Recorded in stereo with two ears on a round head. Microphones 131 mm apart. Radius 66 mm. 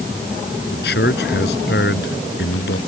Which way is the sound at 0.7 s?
75° left (ahead or behind).